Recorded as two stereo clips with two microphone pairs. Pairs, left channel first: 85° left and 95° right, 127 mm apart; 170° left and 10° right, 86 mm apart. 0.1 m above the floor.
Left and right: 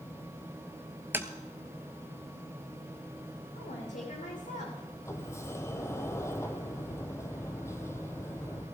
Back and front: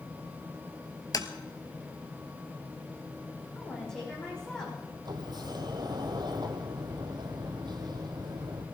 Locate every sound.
1.1 s tapping: 165° right, 0.9 m
3.5 s a woman speaking: 90° left, 6 m
5.0 s a sliding door: 20° left, 1.4 m